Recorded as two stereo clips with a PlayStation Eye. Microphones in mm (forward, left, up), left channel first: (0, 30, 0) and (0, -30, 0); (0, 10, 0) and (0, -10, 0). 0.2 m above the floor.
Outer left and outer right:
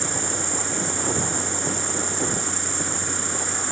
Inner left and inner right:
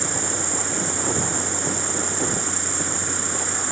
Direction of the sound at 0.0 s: Centre (ahead or behind).